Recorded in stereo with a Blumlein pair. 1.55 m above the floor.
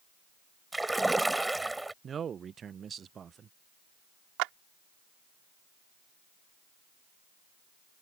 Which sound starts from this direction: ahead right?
A clap, at 4.4 s.